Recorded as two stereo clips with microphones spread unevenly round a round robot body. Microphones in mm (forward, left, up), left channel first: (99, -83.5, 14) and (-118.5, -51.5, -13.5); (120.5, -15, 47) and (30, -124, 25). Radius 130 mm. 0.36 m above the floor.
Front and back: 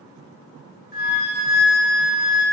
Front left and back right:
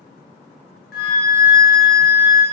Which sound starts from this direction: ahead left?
A flute, at 0.9 s.